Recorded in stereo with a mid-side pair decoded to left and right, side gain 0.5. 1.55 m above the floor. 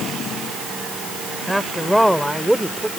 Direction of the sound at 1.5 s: 5° right.